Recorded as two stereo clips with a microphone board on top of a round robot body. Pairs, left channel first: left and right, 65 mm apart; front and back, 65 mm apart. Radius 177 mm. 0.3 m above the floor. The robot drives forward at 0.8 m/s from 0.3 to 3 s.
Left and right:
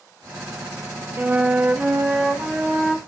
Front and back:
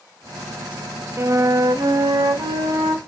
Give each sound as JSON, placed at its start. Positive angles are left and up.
{"t": 1.2, "sound": "a flute", "azimuth_deg": -145, "distance_m": 0.7}